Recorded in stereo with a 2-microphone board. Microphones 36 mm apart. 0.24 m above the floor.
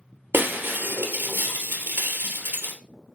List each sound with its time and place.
0.3 s breaking glass: 65° right (ahead or behind), 2.5 m